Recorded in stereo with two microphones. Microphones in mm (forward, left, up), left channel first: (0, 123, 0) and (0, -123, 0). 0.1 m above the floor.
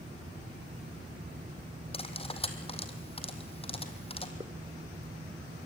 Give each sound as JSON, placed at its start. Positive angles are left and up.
{"t": 1.9, "sound": "cutlery clinking", "side_deg": 25, "distance_m": 2.5}
{"t": 4.4, "sound": "a hiss", "side_deg": -20, "distance_m": 2.0}